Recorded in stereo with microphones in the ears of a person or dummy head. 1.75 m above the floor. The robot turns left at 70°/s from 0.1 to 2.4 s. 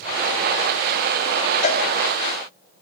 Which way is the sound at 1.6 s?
50° left (ahead or behind).